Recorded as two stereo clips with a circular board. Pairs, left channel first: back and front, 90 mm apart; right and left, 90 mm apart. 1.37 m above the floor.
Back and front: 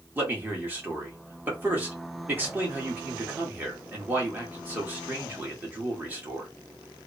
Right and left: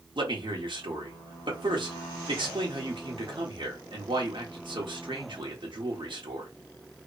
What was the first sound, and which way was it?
A man speaking, 70° left.